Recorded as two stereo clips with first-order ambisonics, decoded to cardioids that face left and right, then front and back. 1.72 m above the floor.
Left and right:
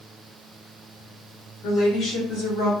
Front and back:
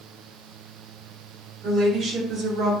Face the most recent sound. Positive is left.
turn(degrees=120)